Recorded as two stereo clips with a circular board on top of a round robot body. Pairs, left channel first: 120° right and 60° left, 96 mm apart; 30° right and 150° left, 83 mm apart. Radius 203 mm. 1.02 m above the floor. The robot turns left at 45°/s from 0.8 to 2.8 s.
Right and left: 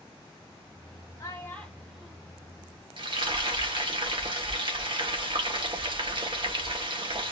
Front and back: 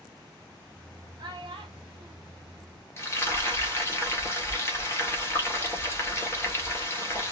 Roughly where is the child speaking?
Behind.